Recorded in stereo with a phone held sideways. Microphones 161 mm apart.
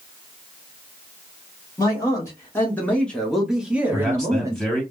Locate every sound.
1.8 s a man speaking: 25° left (ahead or behind), 1.3 m; by 4.7 s 20° right (ahead or behind), 1.1 m
3.9 s a man speaking: 5° left (ahead or behind), 2 m